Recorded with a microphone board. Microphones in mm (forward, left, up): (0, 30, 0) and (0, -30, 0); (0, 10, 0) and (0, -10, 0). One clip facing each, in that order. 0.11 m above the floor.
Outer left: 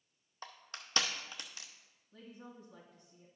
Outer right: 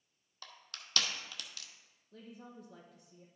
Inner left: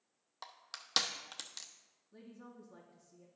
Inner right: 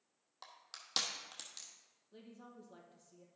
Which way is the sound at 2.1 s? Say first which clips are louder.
Outer right 1 dB, inner left 1 dB; 65° right (ahead or behind).